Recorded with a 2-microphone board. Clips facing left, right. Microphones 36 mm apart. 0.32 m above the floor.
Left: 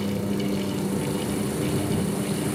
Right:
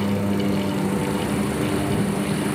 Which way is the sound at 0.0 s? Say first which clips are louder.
Right 4 dB; 45° right (ahead or behind).